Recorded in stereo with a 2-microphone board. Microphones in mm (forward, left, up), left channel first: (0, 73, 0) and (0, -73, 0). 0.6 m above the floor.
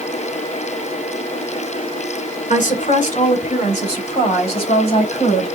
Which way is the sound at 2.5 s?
60° left (ahead or behind).